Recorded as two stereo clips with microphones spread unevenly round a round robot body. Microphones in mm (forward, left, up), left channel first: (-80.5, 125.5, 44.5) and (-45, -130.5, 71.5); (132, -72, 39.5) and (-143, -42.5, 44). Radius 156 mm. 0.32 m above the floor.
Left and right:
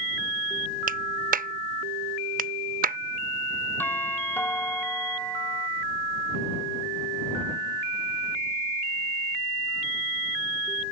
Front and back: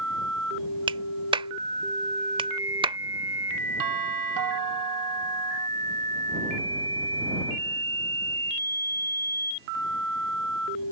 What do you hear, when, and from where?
0.9 s a clap: 125° right
3.8 s a doorbell: straight behind